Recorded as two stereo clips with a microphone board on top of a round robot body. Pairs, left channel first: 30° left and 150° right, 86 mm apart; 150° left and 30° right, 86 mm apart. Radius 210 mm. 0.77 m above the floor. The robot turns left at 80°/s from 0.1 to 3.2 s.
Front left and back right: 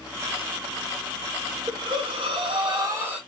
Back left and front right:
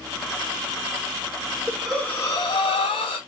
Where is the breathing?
110° right, 1.1 m; by 3.2 s 130° left, 1.1 m.